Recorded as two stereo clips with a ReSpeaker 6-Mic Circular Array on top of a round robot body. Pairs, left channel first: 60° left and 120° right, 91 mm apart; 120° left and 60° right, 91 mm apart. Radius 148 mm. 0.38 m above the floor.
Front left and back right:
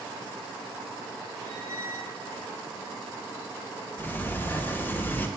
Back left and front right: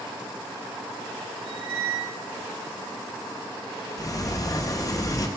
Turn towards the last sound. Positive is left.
turn(degrees=115)